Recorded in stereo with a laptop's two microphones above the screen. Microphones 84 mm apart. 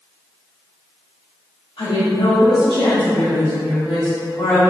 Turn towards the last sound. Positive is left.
turn(degrees=75)  # may be behind; listen again after turning